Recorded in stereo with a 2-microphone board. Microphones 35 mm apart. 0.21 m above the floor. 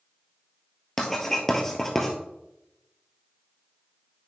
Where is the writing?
10° left (ahead or behind), 2.0 m.